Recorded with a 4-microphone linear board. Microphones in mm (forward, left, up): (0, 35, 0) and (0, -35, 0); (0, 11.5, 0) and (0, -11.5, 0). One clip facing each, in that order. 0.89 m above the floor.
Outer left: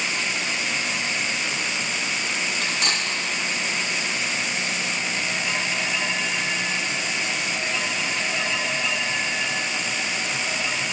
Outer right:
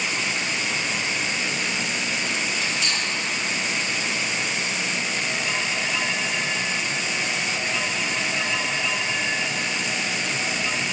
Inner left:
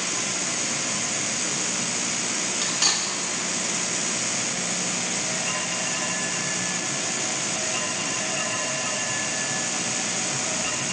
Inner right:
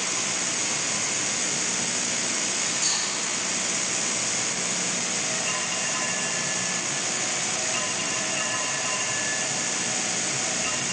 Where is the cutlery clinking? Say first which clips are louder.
Outer left 1 dB, inner left 6 dB; 60° left (ahead or behind), 1.3 m.